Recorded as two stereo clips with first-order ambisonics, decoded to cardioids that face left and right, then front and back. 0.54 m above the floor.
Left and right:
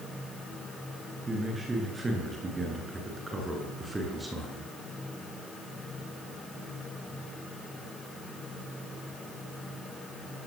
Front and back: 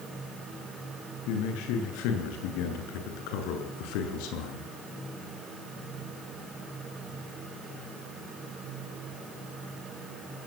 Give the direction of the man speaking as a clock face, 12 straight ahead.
12 o'clock.